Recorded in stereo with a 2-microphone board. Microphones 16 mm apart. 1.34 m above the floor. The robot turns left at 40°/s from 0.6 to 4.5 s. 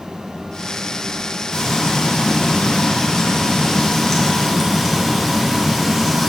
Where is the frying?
120° left, 1.7 m; by 6.3 s straight ahead, 1.7 m.